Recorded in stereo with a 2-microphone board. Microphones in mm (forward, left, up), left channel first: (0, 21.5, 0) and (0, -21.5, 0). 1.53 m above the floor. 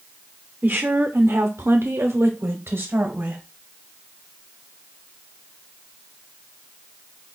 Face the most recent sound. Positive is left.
turn(degrees=-50)  # may be behind; listen again after turning